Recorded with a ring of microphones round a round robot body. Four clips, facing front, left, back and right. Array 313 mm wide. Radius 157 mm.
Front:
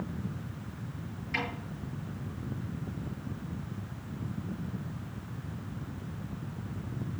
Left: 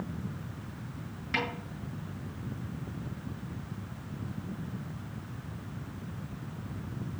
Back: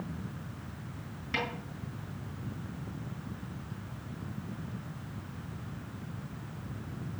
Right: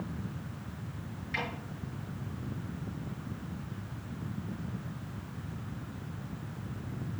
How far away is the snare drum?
About 6 m.